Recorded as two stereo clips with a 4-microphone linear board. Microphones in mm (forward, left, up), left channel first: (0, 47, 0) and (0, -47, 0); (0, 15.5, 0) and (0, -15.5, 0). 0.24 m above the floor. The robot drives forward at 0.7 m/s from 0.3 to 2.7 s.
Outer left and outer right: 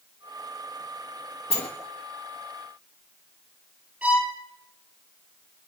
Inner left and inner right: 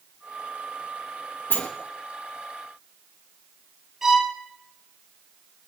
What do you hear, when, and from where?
1.5 s a sliding door: 80° left, 3.5 m; by 1.7 s 75° left (ahead or behind), 3.5 m
4.0 s a violin: 15° right (ahead or behind), 4.5 m